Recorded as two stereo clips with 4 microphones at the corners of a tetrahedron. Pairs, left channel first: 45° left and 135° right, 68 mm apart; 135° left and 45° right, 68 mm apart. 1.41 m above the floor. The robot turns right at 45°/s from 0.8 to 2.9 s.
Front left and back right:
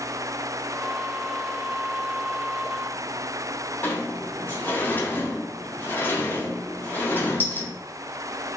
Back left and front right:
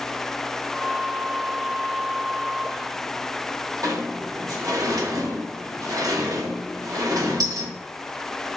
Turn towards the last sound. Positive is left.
turn(degrees=-15)